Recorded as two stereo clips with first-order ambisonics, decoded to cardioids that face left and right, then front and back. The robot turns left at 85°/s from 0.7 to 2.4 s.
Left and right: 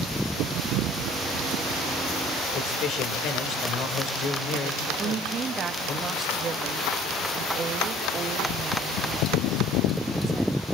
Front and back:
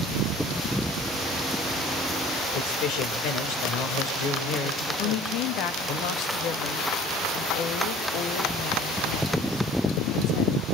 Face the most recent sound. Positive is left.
turn(degrees=-25)